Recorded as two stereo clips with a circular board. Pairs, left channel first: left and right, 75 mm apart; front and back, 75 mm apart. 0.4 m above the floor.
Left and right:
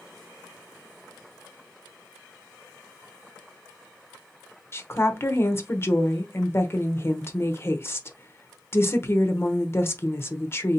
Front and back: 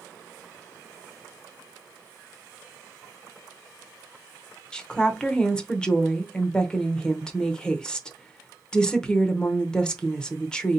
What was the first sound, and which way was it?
A woman speaking, 75° left.